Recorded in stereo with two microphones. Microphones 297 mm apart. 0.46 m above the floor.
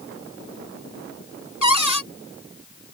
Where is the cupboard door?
80° left.